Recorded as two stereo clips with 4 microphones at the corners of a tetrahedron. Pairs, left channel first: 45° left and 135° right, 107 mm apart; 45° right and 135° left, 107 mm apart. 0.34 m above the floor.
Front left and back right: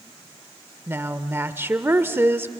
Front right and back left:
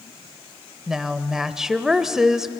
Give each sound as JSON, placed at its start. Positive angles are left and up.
{"t": 0.9, "sound": "a woman speaking", "azimuth_deg": -150, "distance_m": 0.8}